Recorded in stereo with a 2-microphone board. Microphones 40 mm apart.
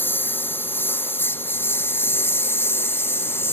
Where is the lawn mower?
65° left (ahead or behind); by 3.5 s 85° left.